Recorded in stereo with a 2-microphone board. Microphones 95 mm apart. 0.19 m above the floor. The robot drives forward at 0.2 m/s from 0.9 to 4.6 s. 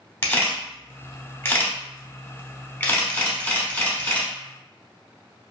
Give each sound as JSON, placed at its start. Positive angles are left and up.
{"t": 0.2, "sound": "a camera shutter", "side_deg": 25, "distance_m": 0.7}